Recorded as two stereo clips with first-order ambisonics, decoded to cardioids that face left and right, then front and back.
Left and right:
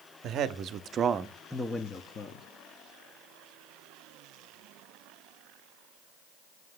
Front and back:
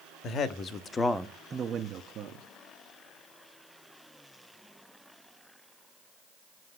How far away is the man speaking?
About 0.9 m.